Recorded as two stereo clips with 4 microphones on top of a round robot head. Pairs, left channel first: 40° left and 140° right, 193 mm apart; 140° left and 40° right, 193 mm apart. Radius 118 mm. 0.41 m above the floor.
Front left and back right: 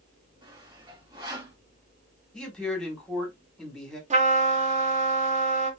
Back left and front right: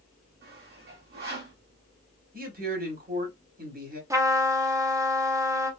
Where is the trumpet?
110° right, 1.1 m.